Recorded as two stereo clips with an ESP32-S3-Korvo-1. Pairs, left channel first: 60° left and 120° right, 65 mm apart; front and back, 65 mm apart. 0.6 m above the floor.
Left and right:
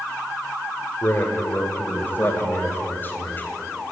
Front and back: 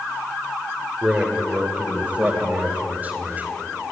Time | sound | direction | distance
1.0 | a man speaking | 105° left | 2.5 m